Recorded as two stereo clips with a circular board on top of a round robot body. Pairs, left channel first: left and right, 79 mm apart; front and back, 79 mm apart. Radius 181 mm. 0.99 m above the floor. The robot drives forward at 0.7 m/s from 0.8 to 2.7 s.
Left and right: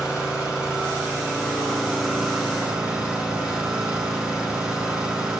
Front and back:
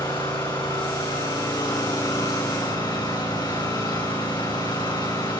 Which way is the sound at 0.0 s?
10° right.